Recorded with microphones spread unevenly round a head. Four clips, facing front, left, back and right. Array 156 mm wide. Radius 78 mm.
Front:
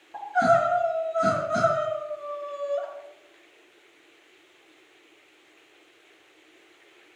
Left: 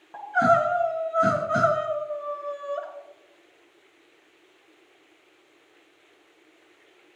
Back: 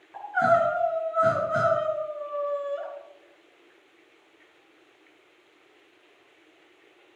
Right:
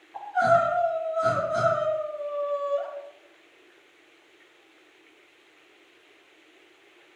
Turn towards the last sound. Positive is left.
turn(degrees=90)